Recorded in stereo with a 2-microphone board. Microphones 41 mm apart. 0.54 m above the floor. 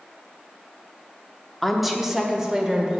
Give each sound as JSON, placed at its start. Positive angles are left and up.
{"t": 1.6, "sound": "a woman speaking", "side_deg": 5, "distance_m": 0.9}